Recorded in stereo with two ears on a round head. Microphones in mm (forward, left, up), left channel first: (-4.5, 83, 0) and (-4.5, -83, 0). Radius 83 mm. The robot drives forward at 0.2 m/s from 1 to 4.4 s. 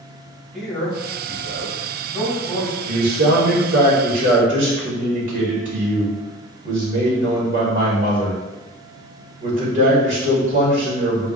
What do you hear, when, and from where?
0.5 s a man speaking: centre (ahead or behind), 1.3 m
2.9 s a man speaking: 55° right (ahead or behind), 1.5 m; by 11.3 s 45° right (ahead or behind), 1.7 m